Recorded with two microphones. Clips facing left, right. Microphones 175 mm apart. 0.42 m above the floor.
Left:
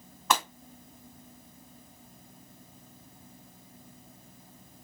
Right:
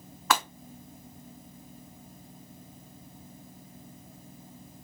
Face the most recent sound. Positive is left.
turn(degrees=0)  # may be behind; listen again after turning